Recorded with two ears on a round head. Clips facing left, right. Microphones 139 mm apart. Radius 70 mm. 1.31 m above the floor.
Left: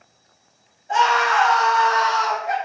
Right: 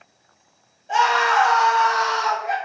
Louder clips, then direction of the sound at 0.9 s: Even; 40° right (ahead or behind).